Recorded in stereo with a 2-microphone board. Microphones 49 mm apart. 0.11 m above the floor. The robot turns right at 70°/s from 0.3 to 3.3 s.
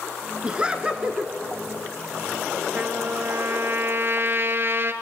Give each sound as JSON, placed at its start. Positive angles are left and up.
{"t": 0.4, "sound": "laughter", "side_deg": -20, "distance_m": 1.5}
{"t": 2.8, "sound": "a trumpet", "azimuth_deg": -140, "distance_m": 1.4}